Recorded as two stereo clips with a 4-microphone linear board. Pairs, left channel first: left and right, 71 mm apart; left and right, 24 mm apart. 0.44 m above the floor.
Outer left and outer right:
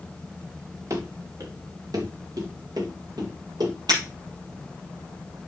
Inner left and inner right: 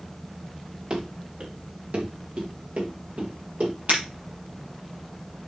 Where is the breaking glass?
75° right (ahead or behind), 5.5 m.